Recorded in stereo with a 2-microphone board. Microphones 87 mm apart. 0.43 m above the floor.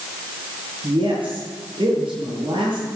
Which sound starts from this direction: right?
A woman speaking, at 0.8 s.